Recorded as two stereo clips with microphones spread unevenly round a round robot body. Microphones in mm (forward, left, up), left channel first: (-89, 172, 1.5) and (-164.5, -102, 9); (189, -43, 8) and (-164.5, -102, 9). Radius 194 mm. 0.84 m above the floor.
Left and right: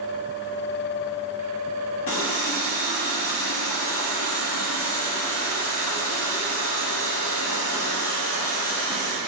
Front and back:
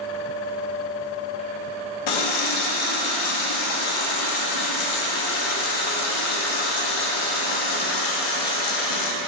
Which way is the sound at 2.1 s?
20° left.